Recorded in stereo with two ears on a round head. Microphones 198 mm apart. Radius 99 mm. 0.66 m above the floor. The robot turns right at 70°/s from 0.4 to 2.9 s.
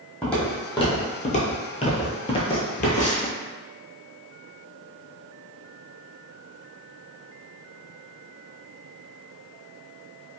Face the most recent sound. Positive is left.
turn(degrees=35)  # may be behind; listen again after turning